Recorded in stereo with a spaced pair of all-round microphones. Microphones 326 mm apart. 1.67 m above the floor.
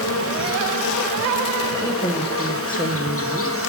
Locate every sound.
0.0 s an insect: 40° left (ahead or behind), 0.9 m
1.8 s a man speaking: 15° left (ahead or behind), 1.0 m